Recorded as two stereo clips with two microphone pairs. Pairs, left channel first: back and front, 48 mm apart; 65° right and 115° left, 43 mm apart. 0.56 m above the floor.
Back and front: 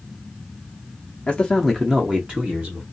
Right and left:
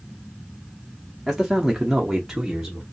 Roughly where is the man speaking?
Behind.